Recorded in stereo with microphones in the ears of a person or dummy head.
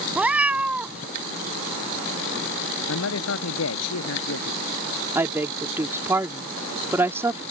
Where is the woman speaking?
20° right (ahead or behind).